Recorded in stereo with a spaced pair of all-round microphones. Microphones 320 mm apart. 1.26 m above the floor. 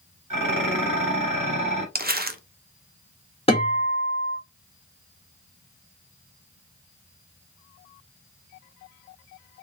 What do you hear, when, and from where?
0.3 s dishes clattering: 80° right, 1.5 m
1.9 s crumpling: 30° right (ahead or behind), 0.6 m
3.5 s a guitar: 20° left (ahead or behind), 1.6 m